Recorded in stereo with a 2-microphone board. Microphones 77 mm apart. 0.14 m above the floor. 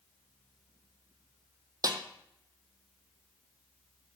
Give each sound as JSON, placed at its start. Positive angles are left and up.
{"t": 1.8, "sound": "a snare drum", "side_deg": -55, "distance_m": 0.8}